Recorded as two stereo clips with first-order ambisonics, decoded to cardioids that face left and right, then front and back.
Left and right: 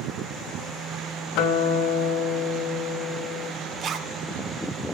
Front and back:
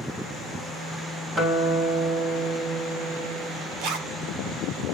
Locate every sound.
1.4 s a guitar: 110° left, 4.5 m
3.8 s a zipper: 145° right, 2 m